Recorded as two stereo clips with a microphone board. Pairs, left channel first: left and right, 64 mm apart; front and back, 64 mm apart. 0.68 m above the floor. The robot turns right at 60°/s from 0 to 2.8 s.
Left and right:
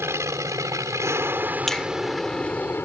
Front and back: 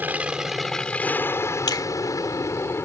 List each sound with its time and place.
0.0 s an aircraft: 125° right; by 2.8 s 40° left
1.7 s a finger snap: 5° left; by 1.9 s 20° left